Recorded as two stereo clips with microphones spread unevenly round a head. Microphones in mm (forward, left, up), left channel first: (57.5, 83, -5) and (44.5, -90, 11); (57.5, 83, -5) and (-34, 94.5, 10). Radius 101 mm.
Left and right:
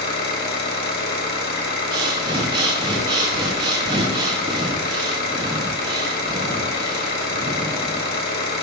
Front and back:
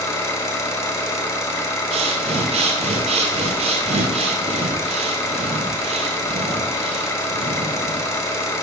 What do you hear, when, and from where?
0.0 s an engine running: 55° left, 1.5 m
1.9 s breathing: 165° right, 0.6 m